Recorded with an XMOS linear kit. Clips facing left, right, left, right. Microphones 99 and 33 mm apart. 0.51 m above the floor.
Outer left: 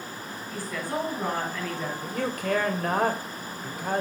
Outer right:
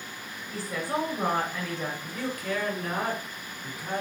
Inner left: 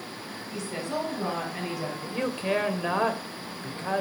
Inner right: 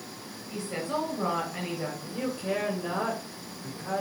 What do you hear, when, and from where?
0.5 s a woman speaking: 25° right (ahead or behind), 5.5 m
2.0 s a man speaking: 60° left (ahead or behind), 2.5 m